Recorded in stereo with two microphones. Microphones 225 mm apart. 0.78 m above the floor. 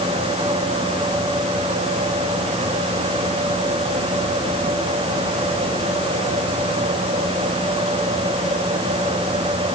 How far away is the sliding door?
No sliding door in this recording.